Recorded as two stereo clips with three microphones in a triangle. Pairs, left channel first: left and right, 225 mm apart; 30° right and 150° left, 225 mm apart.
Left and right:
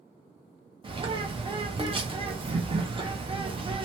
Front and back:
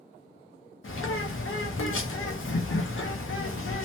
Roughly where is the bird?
Ahead.